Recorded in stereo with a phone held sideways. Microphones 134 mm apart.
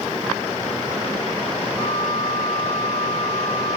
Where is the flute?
25° left (ahead or behind), 4.5 m.